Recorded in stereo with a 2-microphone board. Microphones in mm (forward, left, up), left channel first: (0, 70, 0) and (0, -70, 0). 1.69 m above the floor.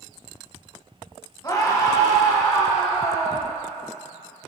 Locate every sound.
1.4 s a scream: 30° left (ahead or behind), 1.6 m